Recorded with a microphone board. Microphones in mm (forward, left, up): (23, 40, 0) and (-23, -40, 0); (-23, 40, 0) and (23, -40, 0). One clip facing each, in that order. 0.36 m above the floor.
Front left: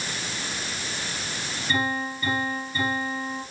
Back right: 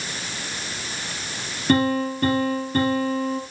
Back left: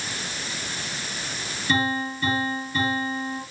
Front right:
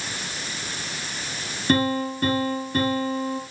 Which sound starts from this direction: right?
A piano, at 1.7 s.